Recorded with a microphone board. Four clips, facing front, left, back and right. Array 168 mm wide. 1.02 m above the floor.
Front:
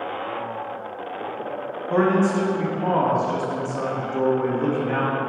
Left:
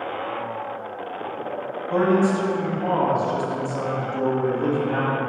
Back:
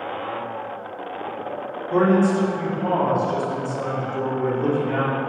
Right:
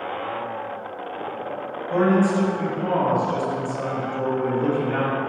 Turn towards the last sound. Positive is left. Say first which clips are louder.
# even, back 1 dB
turn(degrees=10)